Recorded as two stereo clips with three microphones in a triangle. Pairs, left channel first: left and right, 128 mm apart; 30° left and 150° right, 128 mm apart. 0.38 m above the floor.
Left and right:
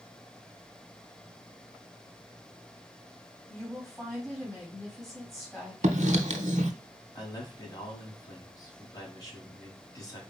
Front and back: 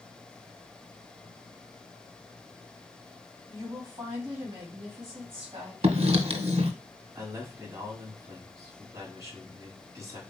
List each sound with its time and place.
3.5 s a woman speaking: 170° left, 2.5 m
5.8 s writing: 110° right, 0.7 m
7.2 s a man speaking: 150° left, 2.5 m